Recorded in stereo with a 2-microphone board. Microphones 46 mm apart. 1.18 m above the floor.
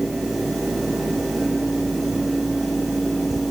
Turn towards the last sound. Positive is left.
No sound to turn to.